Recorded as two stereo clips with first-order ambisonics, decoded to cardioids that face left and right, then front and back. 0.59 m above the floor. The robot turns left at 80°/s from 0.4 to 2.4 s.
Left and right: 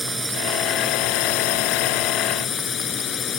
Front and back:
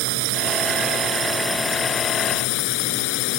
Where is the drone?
175° right; by 3.4 s 25° left.